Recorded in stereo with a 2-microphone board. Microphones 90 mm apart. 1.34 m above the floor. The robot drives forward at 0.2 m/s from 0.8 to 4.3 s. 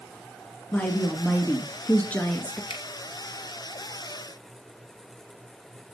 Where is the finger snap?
75° left (ahead or behind), 1.5 m.